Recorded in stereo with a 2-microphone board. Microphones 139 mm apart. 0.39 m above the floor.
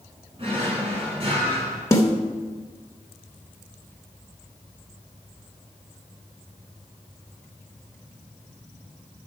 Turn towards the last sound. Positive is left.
turn(degrees=25)  # may be behind; listen again after turning